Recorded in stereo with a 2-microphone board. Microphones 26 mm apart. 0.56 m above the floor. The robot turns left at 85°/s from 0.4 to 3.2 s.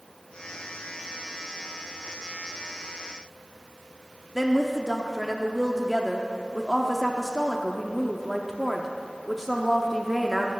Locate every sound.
4.3 s a woman speaking: 5° right (ahead or behind), 0.8 m